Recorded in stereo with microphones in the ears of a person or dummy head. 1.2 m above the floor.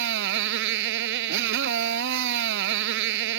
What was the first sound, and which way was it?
A motorcycle, 65° right (ahead or behind).